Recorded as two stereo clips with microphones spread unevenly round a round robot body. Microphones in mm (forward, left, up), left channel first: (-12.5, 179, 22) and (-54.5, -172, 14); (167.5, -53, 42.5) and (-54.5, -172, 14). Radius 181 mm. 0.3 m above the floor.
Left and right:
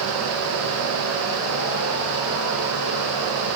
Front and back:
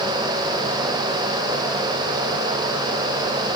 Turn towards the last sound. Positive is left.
No sound to turn to.